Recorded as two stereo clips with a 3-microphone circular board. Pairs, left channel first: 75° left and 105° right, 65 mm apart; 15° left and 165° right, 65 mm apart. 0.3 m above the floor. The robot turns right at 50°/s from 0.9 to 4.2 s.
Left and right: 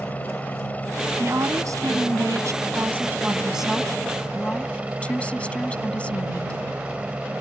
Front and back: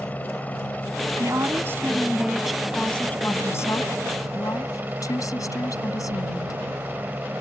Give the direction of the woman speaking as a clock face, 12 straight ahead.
5 o'clock.